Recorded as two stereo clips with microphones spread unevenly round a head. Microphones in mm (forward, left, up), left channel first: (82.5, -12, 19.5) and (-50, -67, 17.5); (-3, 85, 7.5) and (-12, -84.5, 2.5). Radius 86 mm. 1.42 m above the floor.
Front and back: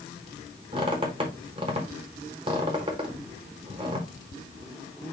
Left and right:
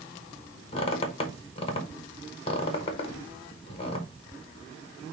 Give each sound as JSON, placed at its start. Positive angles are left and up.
{"t": 0.7, "sound": "a squeak", "azimuth_deg": 140, "distance_m": 0.9}